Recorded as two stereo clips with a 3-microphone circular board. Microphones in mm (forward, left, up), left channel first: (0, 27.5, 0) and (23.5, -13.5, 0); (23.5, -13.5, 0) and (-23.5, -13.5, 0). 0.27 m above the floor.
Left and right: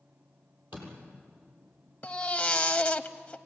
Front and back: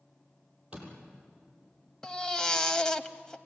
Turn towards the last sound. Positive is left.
turn(degrees=65)